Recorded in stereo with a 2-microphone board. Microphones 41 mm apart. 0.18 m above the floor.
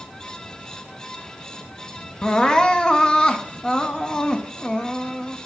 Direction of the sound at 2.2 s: 25° left (ahead or behind).